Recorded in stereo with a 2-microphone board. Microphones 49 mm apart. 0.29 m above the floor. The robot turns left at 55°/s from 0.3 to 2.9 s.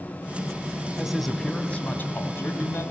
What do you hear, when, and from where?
1.0 s a man speaking: 170° right, 1.9 m; by 2.9 s 85° left, 1.9 m